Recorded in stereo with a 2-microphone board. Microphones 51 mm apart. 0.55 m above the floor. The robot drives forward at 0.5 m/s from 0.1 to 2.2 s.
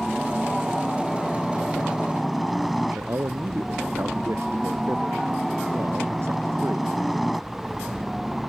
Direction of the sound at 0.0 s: Centre (ahead or behind).